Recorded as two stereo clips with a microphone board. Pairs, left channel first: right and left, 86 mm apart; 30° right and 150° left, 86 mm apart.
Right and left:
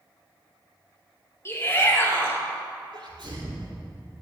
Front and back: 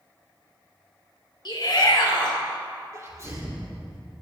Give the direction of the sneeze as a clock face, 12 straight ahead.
9 o'clock.